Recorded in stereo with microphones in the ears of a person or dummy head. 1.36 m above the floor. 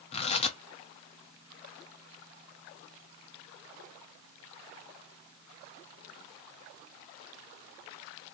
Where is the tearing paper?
35° left (ahead or behind), 0.6 m.